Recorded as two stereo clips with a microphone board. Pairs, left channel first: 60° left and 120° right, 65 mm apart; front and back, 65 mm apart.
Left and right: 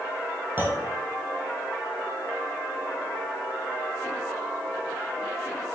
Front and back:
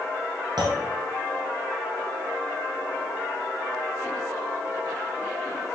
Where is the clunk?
Straight behind, 2.5 m.